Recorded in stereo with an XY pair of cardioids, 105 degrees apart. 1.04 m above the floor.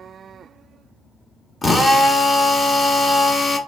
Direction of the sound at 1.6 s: 20° left.